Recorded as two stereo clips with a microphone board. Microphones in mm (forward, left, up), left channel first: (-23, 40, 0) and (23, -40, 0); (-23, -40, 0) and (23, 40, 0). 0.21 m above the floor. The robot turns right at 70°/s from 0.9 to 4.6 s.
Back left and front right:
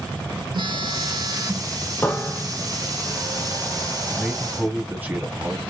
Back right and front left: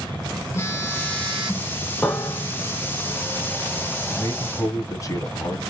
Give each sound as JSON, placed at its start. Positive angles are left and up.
{"t": 0.5, "sound": "a phone buzzing", "azimuth_deg": -65, "distance_m": 1.1}
{"t": 2.0, "sound": "a piano", "azimuth_deg": 170, "distance_m": 0.8}
{"t": 4.1, "sound": "a man speaking", "azimuth_deg": -150, "distance_m": 1.1}